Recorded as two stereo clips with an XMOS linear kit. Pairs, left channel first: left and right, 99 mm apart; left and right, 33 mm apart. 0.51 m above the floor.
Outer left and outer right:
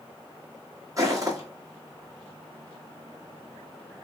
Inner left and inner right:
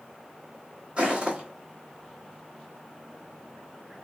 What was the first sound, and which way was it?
Footsteps, 30° right (ahead or behind).